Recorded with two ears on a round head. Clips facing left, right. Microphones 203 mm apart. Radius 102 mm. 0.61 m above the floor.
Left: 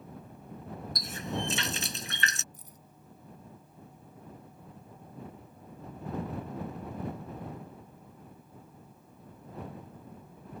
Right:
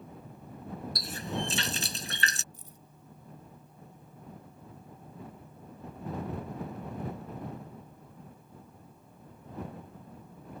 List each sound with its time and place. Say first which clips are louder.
0.9 s a running tap: left 1 dB; 30° right (ahead or behind)
2.5 s keys jangling: right 1 dB; 25° right (ahead or behind)